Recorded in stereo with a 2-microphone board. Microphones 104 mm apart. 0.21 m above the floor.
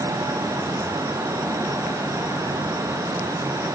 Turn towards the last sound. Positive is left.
No sound to turn to.